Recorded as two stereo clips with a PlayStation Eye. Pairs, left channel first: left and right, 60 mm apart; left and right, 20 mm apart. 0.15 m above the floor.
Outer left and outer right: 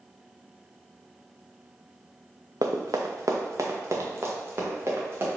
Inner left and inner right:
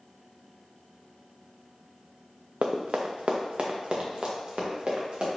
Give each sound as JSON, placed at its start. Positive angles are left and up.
{"t": 2.6, "sound": "running footsteps", "side_deg": -80, "distance_m": 0.8}